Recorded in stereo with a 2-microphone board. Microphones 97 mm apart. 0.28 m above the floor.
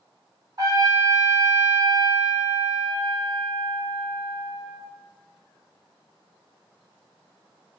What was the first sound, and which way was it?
A trumpet, 40° right (ahead or behind).